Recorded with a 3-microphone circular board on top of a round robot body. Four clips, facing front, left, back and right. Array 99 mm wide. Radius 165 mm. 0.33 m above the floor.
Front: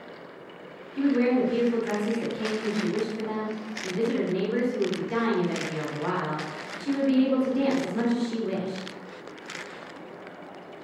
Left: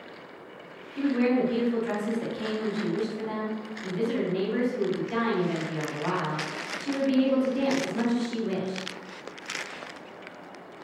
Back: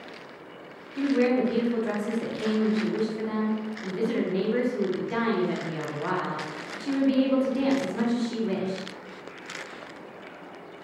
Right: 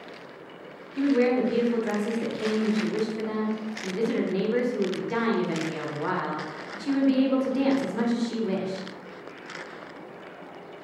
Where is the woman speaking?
90° right, 1.2 m.